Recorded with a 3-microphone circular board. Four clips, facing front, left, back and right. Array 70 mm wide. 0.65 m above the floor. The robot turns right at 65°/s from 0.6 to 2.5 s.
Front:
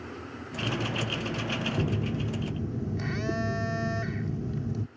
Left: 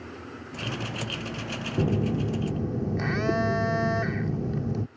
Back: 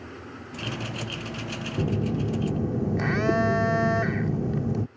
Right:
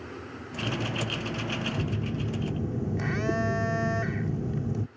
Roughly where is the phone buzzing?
Behind left.